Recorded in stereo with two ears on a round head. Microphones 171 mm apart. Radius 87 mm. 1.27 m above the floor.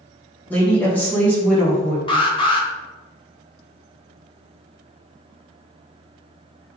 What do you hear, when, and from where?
0.5 s a woman speaking: 10° left (ahead or behind), 1.1 m
2.1 s an alarm: 25° left (ahead or behind), 0.9 m